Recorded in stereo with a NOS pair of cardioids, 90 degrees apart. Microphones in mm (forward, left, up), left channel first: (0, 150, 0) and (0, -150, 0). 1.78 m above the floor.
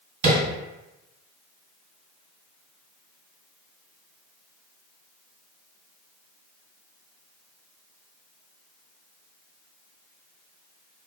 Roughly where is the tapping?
Ahead right.